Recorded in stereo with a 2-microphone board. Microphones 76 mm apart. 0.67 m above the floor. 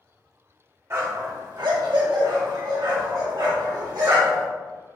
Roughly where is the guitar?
I don't hear a guitar.